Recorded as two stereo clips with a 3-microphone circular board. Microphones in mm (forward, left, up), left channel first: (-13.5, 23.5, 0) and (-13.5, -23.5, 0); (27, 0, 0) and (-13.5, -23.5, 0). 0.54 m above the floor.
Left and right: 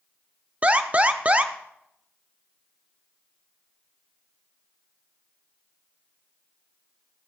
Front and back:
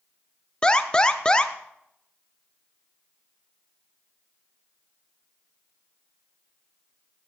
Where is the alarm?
40° right, 0.7 m.